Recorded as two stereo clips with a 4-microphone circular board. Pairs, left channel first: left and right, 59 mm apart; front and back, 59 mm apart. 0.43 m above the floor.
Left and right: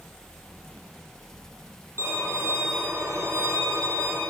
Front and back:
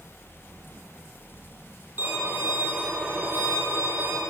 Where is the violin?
125° right, 8 m.